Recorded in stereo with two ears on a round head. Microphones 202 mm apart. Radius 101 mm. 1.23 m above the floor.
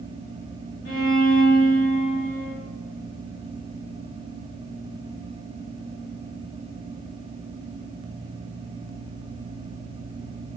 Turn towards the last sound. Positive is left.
turn(degrees=50)  # may be behind; listen again after turning